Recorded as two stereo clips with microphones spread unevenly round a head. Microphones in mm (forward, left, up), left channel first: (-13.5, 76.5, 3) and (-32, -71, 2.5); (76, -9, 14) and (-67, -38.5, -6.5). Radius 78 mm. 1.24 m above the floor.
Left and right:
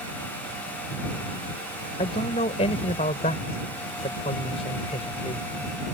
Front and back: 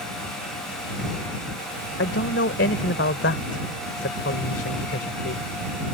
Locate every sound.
2.0 s a man speaking: 25° left